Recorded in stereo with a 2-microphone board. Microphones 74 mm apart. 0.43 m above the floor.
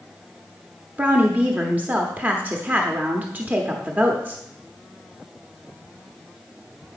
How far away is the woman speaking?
About 0.8 m.